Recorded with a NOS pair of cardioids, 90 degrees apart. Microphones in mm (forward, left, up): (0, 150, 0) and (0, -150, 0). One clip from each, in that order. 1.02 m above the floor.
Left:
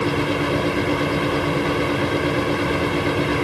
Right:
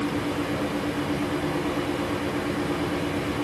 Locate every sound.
0.0 s a fan: 70° left, 2.5 m